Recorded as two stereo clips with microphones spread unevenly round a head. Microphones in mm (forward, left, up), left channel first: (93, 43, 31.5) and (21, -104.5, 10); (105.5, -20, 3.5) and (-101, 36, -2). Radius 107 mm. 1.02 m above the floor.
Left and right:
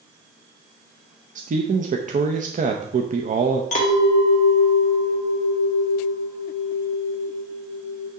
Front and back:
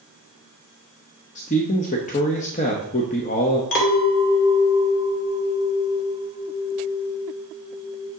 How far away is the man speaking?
About 0.8 m.